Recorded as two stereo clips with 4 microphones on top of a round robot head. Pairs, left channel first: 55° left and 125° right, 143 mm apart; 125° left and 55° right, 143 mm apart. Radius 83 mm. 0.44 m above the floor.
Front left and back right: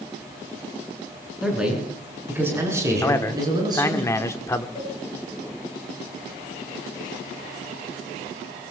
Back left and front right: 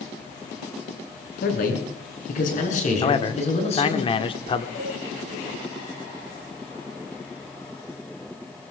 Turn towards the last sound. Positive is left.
turn(degrees=115)